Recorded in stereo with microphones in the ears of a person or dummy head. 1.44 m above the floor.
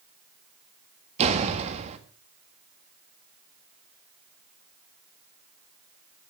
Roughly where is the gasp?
No gasp in this recording.